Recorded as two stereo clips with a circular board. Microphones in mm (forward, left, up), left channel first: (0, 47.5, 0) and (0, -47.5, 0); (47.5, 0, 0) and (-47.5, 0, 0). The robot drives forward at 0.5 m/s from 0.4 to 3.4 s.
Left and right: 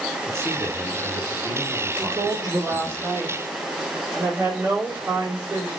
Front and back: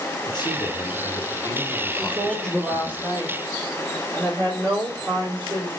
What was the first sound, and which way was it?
A man speaking, 35° right.